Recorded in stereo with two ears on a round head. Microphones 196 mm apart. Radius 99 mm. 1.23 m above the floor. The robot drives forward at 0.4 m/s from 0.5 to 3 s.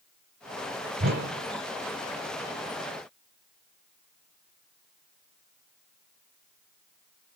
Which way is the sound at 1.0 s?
50° right (ahead or behind).